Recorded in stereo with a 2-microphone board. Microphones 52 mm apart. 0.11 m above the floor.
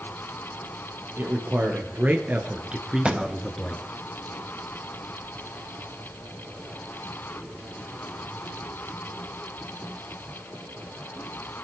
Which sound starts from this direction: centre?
A thud, at 3.0 s.